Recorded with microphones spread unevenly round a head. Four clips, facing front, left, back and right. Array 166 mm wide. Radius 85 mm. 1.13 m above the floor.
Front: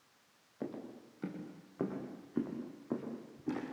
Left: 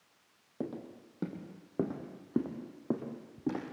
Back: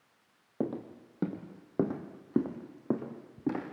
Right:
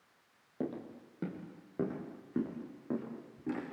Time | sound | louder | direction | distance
0.6 | footsteps | right 1 dB, back 8 dB | straight behind | 2.5 m